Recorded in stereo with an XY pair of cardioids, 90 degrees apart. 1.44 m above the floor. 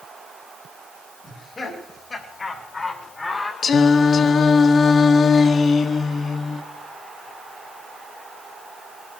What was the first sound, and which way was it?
Laughter, 40° left.